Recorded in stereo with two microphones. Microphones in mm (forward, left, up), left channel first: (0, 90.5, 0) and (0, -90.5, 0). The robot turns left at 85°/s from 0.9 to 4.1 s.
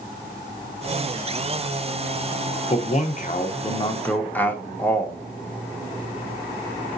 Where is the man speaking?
135° left, 0.9 m; by 5.2 s 15° left, 0.9 m.